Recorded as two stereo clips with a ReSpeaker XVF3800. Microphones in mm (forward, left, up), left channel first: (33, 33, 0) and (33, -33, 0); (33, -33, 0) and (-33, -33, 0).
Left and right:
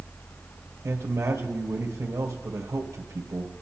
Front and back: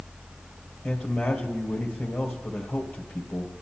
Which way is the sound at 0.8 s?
55° right.